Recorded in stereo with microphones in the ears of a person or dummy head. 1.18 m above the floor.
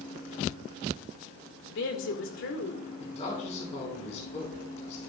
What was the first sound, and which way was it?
A woman speaking, 65° left (ahead or behind).